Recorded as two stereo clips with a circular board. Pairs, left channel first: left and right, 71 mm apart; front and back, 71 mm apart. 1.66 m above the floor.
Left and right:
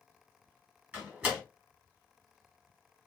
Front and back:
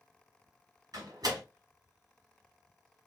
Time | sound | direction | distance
0.9 | a door slam | 155° right | 2.5 m